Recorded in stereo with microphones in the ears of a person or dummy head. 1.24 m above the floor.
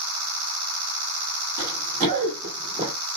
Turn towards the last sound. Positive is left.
turn(degrees=-20)  # may be behind; listen again after turning